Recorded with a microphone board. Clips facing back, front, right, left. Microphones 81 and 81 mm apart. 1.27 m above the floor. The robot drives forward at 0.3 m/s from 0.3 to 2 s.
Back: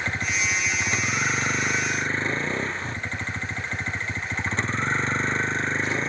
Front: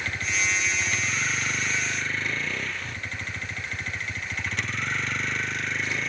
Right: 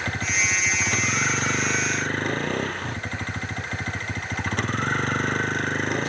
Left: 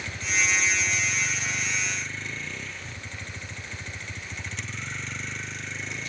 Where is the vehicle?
120° right.